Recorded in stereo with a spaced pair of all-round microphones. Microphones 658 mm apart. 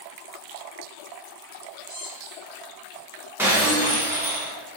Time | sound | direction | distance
1.9 | a squeak | 60° right (ahead or behind) | 1.9 m
3.4 | breaking glass | 5° right (ahead or behind) | 1.0 m